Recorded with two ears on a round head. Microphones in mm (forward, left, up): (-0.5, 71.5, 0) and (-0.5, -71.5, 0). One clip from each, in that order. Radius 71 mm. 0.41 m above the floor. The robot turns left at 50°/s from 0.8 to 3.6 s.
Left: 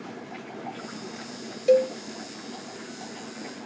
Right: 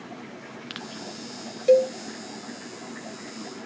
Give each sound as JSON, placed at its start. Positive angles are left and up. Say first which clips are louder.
{"t": 1.7, "sound": "a cowbell", "louder": "right 2 dB", "side_deg": 0, "distance_m": 0.7}